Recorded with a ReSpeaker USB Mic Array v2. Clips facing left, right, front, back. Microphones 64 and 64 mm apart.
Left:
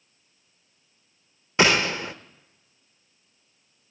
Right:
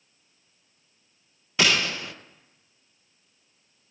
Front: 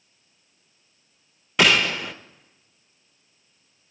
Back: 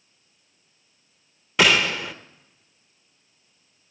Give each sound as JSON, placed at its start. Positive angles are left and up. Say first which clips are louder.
{"t": 1.6, "sound": "a gunshot", "louder": "left 4 dB, even", "azimuth_deg": 90, "distance_m": 0.7}